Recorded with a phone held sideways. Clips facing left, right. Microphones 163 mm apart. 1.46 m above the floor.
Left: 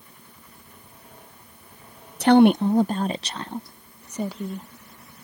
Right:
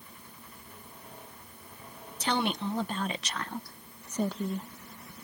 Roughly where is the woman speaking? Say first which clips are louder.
Left 15 dB; left.